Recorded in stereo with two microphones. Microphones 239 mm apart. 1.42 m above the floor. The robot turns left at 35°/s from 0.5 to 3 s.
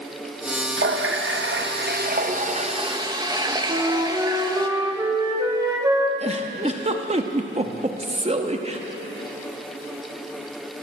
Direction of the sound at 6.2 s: 25° right (ahead or behind).